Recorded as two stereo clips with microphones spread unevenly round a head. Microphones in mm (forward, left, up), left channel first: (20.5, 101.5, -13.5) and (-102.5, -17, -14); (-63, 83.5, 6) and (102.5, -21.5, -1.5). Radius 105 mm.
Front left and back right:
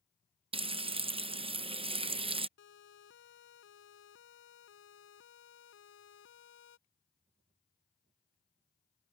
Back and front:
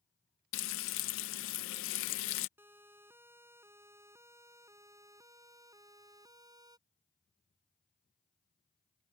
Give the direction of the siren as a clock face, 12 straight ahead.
10 o'clock.